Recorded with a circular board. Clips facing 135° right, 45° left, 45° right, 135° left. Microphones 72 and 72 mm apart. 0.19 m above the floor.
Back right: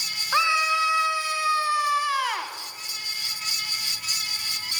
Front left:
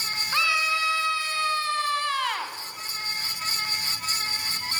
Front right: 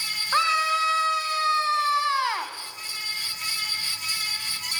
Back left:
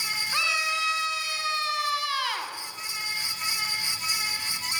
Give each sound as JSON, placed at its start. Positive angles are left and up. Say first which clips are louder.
{"t": 0.3, "sound": "a scream", "louder": "back right 4 dB, front right 7 dB", "azimuth_deg": -75, "distance_m": 2.0}